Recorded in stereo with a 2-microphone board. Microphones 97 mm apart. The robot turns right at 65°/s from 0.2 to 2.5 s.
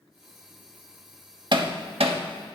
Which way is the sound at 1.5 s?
50° right (ahead or behind).